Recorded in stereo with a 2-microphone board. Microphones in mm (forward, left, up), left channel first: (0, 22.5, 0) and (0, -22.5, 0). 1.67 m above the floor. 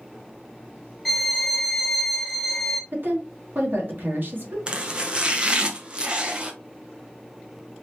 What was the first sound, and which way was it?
A violin, 5° left (ahead or behind).